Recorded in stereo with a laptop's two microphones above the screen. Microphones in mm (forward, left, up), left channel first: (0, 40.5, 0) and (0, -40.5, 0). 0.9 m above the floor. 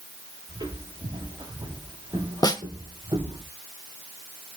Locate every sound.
0.5 s footsteps: 75° right (ahead or behind), 9.5 m; by 3.4 s 85° right, 9 m
2.4 s a snare drum: 50° left (ahead or behind), 1.0 m